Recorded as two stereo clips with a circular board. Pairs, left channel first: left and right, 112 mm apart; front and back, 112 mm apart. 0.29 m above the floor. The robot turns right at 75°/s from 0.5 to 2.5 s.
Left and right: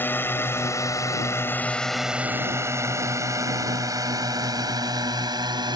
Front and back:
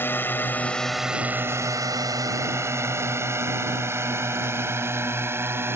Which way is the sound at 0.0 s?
45° left.